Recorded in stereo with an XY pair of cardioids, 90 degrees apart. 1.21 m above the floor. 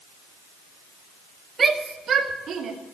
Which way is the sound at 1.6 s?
50° right.